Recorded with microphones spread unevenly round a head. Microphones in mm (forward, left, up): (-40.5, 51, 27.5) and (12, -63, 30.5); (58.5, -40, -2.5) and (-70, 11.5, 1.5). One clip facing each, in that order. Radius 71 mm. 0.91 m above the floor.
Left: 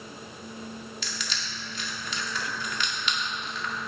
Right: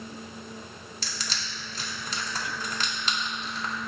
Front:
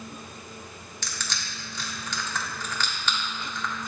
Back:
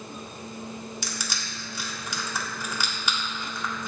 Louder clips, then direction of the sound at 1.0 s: Even, back 2 dB; 120° right.